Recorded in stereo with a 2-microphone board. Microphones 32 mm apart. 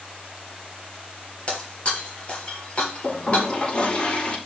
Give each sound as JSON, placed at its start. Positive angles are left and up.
{"t": 1.5, "sound": "breaking glass", "side_deg": 35, "distance_m": 4.0}
{"t": 3.0, "sound": "a toilet flushing", "side_deg": 30, "distance_m": 6.5}